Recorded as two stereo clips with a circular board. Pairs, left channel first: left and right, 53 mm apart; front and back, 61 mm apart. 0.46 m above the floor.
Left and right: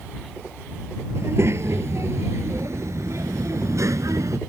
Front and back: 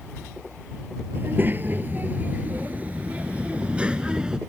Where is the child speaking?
125° right; by 4.4 s 105° right.